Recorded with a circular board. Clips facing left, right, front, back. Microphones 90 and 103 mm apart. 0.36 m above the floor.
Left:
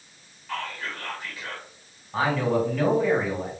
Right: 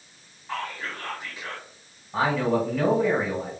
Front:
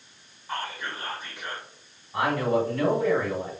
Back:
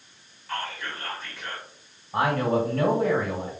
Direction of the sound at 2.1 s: 170° right.